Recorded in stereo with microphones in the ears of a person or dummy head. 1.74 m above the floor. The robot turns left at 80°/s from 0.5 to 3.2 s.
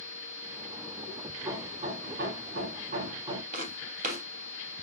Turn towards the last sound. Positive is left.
turn(degrees=-55)  # may be behind; listen again after turning